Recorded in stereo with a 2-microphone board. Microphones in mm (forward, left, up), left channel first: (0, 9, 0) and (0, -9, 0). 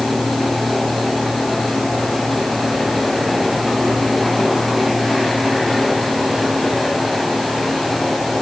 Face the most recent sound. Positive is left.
No sound to turn to.